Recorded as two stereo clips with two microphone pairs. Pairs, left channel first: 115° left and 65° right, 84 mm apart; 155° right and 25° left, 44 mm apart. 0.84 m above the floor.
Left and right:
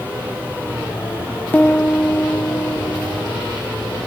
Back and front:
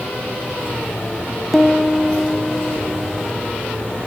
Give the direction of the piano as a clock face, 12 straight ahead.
8 o'clock.